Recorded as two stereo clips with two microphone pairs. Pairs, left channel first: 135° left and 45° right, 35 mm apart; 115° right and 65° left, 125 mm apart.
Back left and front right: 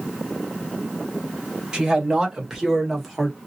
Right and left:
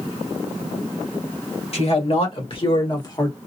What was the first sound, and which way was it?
A man speaking, 110° right.